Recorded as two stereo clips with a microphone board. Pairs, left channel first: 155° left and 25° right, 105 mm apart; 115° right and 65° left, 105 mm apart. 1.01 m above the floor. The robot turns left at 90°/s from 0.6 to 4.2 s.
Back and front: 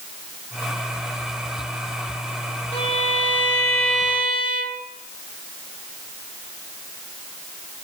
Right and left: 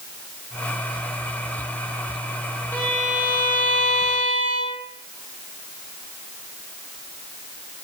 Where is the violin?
Straight behind, 1.6 m; by 4.8 s 45° left, 1.6 m.